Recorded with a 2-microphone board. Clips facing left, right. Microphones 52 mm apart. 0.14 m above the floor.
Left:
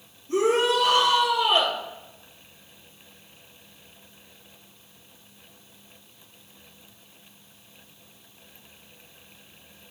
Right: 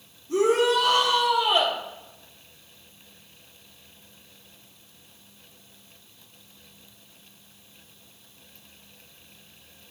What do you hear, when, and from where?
0.3 s a shout: 60° left (ahead or behind), 3.5 m